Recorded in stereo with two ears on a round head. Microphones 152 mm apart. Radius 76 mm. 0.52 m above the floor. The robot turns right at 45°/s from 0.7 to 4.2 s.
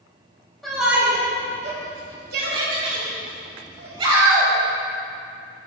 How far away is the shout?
About 2.5 m.